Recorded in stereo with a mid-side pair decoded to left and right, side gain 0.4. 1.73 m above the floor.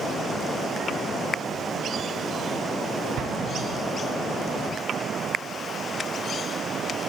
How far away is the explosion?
About 0.7 m.